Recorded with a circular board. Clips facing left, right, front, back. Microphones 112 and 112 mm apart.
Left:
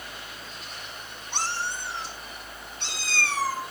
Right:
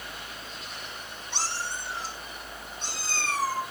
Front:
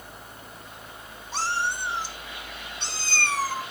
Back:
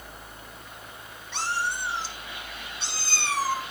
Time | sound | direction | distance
1.3 | a cat meowing | 55° left | 1.8 m